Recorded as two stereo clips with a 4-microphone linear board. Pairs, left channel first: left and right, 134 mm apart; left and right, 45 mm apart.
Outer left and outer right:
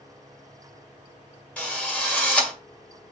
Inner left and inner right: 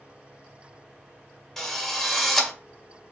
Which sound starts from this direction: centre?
A drill, at 1.6 s.